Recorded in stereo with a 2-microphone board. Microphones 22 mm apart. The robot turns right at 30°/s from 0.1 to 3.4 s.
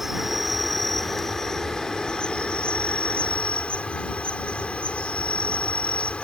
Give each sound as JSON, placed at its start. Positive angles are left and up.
{"t": 0.0, "sound": "an insect", "azimuth_deg": -15}